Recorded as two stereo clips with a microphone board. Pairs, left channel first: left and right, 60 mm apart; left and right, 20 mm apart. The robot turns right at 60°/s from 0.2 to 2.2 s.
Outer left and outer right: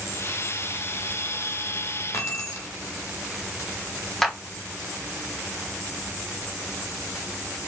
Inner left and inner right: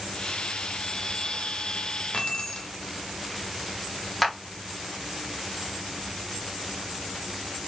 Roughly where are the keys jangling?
Left.